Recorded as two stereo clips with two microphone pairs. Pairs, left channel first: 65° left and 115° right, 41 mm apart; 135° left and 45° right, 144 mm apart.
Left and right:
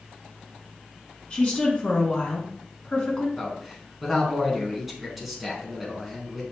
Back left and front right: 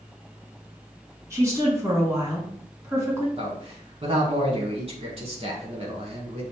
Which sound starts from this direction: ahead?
A woman speaking, at 1.3 s.